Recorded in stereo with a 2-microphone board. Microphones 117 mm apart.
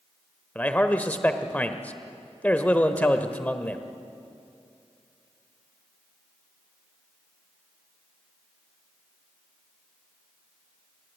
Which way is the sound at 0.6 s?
15° left (ahead or behind).